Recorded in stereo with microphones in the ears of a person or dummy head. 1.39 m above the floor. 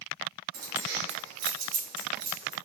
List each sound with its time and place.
0.5 s keys jangling: 50° right (ahead or behind), 1.1 m; by 2.5 s 55° right (ahead or behind), 2 m